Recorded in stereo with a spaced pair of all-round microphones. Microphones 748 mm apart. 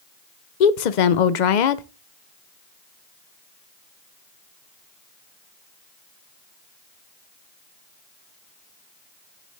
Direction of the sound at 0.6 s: 65° left (ahead or behind).